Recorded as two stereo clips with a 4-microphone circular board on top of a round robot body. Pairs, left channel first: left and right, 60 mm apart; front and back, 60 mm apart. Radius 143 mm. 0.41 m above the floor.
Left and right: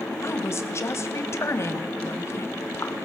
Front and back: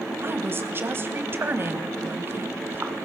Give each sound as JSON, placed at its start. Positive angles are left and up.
{"t": 0.2, "sound": "a woman speaking", "azimuth_deg": 130, "distance_m": 3.0}